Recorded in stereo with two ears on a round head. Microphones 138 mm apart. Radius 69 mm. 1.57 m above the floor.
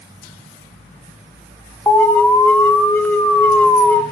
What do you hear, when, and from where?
1.9 s an alarm: 10° left (ahead or behind), 0.8 m